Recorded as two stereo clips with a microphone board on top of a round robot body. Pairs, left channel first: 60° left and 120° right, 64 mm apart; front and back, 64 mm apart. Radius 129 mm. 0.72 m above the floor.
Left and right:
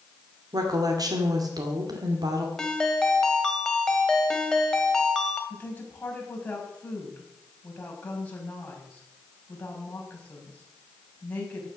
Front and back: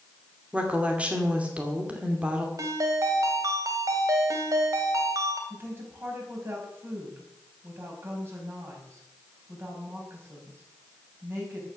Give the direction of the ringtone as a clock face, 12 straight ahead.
7 o'clock.